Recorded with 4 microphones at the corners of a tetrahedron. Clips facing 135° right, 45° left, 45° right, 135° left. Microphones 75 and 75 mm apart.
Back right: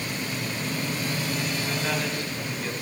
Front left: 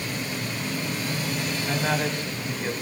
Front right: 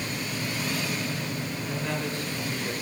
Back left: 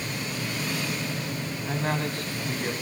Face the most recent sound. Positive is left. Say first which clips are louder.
# front left 6 dB, back left 4 dB
turn(degrees=100)